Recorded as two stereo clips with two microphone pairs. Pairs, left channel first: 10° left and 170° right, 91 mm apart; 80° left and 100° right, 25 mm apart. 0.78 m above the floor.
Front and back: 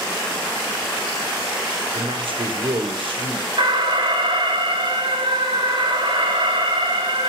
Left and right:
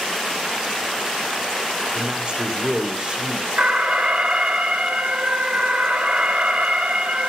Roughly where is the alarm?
Behind right.